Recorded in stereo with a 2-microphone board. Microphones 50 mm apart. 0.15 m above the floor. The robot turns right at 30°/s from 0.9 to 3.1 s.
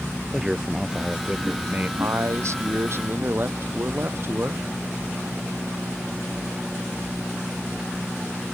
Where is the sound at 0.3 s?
10° right (ahead or behind); by 1.9 s 35° right (ahead or behind).